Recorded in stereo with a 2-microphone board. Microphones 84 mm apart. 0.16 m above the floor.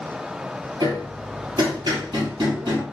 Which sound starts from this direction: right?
Hammering, at 0.8 s.